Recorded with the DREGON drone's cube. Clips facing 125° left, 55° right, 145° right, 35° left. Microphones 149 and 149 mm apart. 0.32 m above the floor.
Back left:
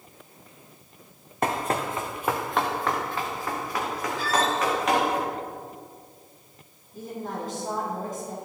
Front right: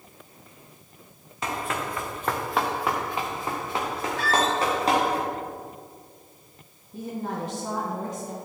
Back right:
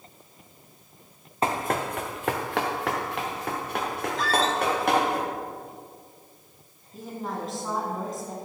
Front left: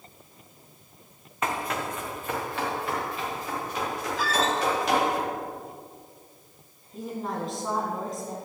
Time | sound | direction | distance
1.4 | running footsteps | 155° left | 1.4 m
4.2 | a squeak | 50° right | 1.3 m
6.9 | a woman speaking | 55° right | 3 m